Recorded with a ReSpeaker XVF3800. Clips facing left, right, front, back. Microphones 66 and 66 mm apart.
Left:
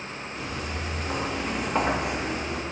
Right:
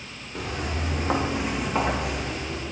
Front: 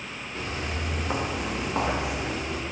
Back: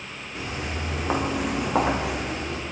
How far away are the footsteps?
About 2 m.